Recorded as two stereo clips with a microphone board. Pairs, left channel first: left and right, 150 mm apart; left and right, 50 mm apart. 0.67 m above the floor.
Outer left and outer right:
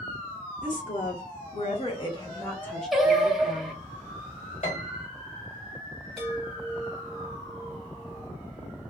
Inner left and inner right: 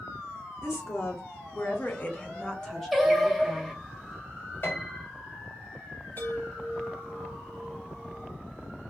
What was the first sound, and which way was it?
A woman speaking, 60° left (ahead or behind).